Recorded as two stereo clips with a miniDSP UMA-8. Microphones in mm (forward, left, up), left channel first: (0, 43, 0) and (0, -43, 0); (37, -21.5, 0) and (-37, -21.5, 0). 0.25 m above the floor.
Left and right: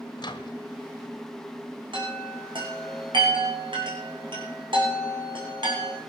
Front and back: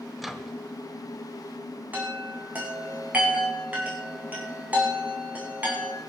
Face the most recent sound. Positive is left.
turn(degrees=-110)